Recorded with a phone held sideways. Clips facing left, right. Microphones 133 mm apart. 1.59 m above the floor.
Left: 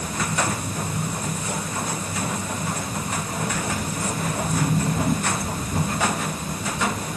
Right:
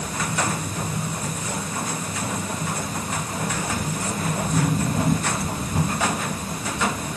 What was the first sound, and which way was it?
Only background noise.